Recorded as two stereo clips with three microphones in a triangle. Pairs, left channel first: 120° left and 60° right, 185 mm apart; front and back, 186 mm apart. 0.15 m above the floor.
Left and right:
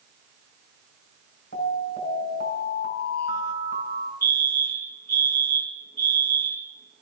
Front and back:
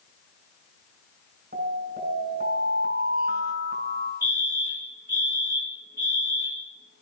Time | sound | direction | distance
1.5 | an alarm | 150° left | 6.5 m
4.2 | a fire alarm | 160° left | 6.5 m